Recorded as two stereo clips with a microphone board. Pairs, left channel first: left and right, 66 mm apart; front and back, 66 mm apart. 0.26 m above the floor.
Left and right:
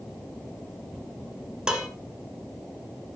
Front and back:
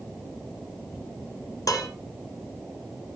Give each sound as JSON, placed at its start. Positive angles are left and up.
{"t": 1.7, "sound": "dishes clattering", "azimuth_deg": -15, "distance_m": 2.0}